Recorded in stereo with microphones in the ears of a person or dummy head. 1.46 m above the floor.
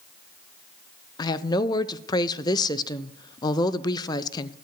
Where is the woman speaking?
20° left (ahead or behind), 0.6 m.